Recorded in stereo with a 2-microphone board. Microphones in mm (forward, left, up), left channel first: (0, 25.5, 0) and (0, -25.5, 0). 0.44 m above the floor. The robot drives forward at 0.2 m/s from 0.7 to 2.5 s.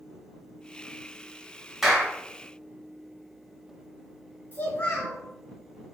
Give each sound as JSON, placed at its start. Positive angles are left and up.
{"t": 1.8, "sound": "a clap", "side_deg": 0, "distance_m": 0.8}
{"t": 4.5, "sound": "a child speaking", "side_deg": 25, "distance_m": 0.9}